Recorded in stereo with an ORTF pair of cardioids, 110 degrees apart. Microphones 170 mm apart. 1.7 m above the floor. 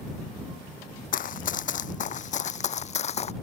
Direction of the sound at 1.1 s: 55° left.